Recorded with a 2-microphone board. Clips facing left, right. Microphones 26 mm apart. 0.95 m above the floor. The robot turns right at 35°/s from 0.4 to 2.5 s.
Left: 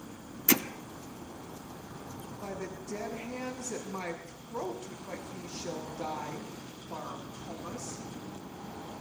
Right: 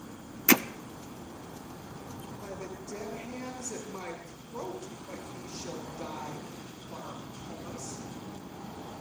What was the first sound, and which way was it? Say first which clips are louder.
Hammering: right 4 dB; 35° right (ahead or behind).